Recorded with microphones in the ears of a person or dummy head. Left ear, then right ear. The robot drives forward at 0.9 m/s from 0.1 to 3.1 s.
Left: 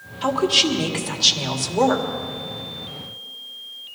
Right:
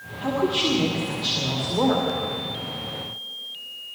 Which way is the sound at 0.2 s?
55° left (ahead or behind).